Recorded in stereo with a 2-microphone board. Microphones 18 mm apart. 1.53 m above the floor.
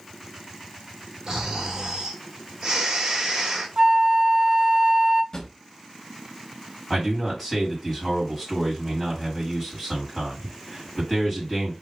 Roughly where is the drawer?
Left.